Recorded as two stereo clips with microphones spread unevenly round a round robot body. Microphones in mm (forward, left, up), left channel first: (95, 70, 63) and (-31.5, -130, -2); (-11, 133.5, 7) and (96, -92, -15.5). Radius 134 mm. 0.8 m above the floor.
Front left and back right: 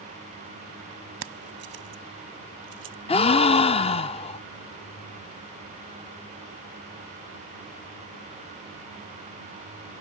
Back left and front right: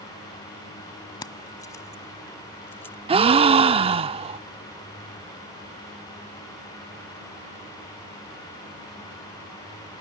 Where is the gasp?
5° left.